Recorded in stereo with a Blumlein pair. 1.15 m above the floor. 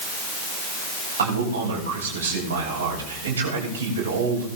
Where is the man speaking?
65° right, 8 m.